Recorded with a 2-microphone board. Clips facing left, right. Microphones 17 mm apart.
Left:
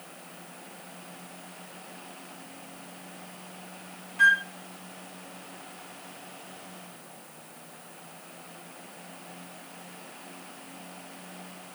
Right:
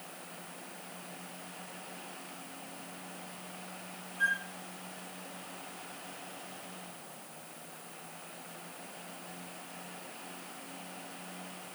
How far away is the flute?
About 0.8 m.